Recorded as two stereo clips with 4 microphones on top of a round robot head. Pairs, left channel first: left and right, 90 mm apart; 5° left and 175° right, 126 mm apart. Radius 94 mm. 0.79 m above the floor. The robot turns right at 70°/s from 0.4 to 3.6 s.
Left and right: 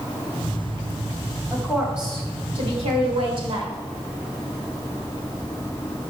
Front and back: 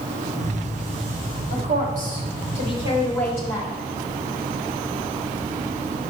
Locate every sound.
1.5 s a woman speaking: 160° left, 4 m; by 3.7 s 55° right, 4 m